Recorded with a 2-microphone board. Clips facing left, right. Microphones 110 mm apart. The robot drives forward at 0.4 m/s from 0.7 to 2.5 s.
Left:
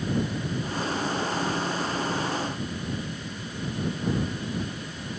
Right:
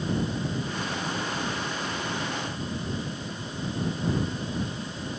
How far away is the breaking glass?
I don't hear breaking glass.